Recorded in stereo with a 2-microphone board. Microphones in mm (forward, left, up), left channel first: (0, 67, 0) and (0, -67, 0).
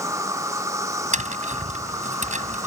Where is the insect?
25° right (ahead or behind).